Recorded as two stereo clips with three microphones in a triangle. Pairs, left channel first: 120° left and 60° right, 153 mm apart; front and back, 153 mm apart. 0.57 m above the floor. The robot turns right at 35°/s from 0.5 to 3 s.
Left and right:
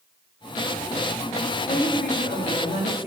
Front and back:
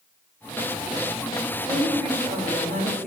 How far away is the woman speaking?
About 3 m.